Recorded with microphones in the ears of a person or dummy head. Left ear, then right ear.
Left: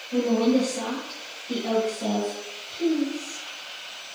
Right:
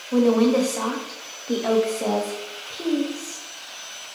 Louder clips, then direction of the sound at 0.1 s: Right 4 dB; 35° right (ahead or behind).